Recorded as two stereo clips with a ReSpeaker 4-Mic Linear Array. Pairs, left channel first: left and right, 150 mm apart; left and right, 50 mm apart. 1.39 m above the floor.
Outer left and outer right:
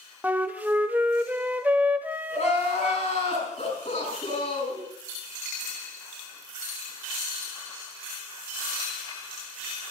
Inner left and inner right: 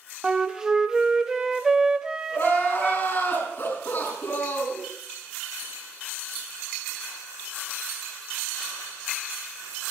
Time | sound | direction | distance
0.2 | a flute | 10° right (ahead or behind) | 1.0 m
2.3 | crying | 50° left (ahead or behind) | 6.5 m